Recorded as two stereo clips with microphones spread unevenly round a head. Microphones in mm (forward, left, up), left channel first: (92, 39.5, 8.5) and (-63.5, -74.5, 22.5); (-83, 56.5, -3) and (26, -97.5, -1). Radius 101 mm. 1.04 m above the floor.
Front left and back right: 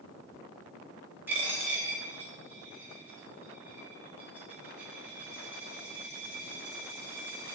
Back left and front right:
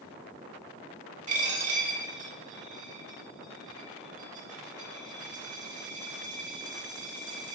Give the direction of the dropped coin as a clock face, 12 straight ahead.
2 o'clock.